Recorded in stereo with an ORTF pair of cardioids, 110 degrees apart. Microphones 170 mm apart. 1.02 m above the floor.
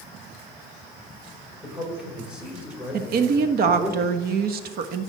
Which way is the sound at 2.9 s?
60° right.